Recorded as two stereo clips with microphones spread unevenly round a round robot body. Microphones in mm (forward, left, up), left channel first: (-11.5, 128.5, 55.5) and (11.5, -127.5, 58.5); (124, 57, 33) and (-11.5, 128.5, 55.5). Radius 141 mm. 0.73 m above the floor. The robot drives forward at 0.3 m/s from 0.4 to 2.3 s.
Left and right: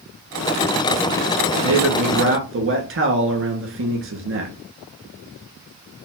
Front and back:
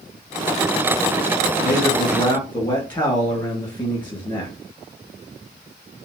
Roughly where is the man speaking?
Right.